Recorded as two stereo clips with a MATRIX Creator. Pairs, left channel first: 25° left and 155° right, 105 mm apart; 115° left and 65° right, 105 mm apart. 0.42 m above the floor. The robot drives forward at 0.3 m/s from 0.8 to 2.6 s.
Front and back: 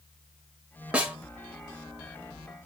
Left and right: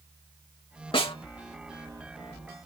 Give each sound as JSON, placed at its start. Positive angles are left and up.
{"t": 0.9, "sound": "a snare drum", "azimuth_deg": 125, "distance_m": 0.9}